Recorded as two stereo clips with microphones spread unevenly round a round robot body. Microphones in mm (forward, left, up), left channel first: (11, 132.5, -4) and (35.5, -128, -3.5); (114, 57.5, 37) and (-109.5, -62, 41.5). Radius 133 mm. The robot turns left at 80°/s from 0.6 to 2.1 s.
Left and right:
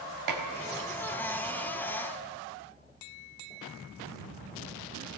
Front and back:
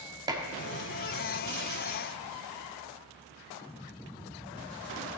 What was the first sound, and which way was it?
Dishes clattering, 75° right.